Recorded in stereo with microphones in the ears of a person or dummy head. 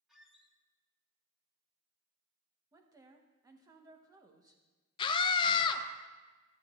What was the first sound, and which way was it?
A squeak, centre (ahead or behind).